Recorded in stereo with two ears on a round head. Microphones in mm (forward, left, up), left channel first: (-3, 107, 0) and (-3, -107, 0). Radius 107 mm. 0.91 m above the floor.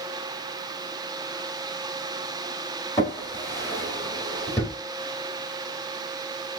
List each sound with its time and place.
3.0 s a drawer: 10° left (ahead or behind), 2.5 m